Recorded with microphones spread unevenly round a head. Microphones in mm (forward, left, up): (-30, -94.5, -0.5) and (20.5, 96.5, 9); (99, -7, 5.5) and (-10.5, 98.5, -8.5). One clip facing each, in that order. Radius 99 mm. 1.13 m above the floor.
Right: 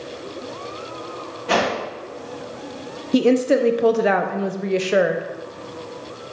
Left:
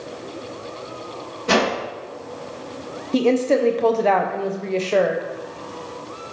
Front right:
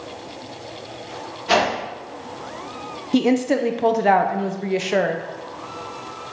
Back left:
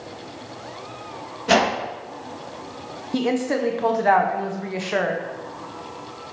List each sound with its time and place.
1.5 s a whoosh: 105° left, 2.0 m
3.1 s a woman speaking: 80° right, 0.6 m